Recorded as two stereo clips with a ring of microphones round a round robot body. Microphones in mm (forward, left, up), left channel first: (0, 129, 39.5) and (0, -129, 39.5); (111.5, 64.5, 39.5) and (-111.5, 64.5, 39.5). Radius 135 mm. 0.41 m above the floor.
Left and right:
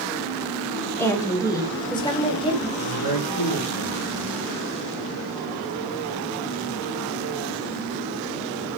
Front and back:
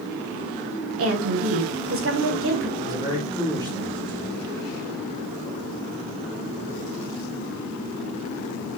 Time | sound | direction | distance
1.0 | a woman speaking | 170° left | 3.5 m
2.8 | a man speaking | 105° left | 6.5 m